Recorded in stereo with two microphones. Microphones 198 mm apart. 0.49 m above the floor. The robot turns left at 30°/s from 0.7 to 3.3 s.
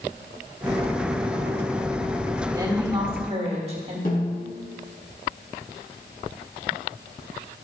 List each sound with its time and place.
2.5 s a woman speaking: 20° right (ahead or behind), 1.5 m; by 4.0 s 35° right (ahead or behind), 1.5 m
4.0 s a snare drum: 55° left (ahead or behind), 2.5 m